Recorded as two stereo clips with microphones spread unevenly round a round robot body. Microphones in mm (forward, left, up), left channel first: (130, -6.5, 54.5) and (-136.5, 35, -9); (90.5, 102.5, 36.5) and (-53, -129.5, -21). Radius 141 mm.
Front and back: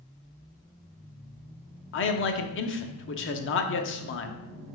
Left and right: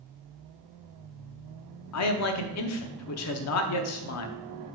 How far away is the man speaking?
About 0.8 m.